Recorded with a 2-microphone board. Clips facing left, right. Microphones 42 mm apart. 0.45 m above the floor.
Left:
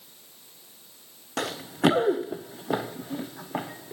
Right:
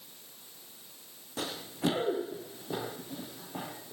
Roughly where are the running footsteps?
Left.